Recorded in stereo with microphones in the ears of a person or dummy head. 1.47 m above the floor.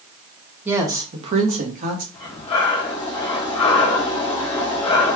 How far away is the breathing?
About 1.0 m.